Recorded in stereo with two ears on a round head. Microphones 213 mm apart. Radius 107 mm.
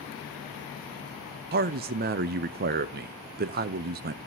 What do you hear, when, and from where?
1.5 s a man speaking: 40° right (ahead or behind), 0.5 m